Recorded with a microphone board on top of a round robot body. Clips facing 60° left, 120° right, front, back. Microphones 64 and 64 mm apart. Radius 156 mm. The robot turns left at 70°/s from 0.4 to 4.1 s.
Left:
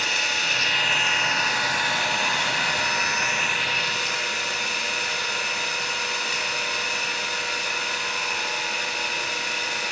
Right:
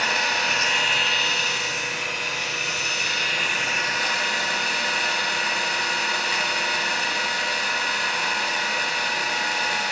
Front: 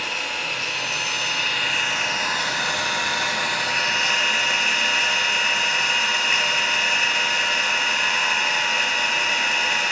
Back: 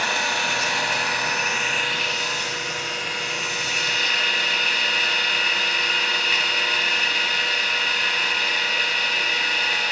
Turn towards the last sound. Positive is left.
turn(degrees=-75)